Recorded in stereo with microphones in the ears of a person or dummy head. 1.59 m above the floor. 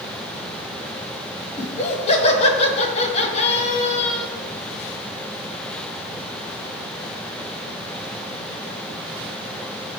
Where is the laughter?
30° left (ahead or behind), 1.7 m.